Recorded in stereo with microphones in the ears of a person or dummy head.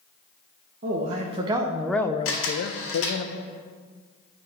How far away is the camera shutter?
About 1.9 m.